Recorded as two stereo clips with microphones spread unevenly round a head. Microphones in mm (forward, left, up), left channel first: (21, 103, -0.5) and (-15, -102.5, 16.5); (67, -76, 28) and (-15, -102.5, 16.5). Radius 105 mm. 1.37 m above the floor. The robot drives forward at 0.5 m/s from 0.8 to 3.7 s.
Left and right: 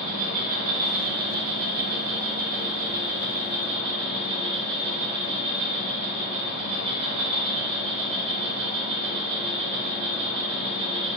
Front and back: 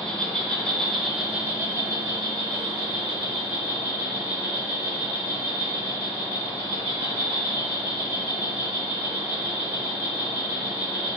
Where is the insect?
70° right, 0.7 m; by 11.2 s 160° right, 1.5 m.